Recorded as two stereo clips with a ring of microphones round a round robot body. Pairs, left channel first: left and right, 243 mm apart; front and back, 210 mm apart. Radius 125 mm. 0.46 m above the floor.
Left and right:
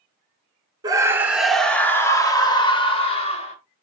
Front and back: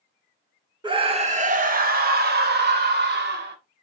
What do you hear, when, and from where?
0.8 s a scream: 145° right, 1.3 m; by 3.5 s 150° left, 2.5 m